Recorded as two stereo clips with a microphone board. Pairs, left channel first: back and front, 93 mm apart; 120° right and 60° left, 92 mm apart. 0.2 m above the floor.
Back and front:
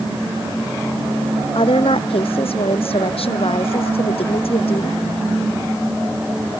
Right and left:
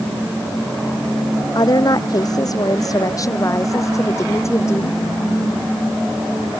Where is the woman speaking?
165° right; by 5.0 s 175° left.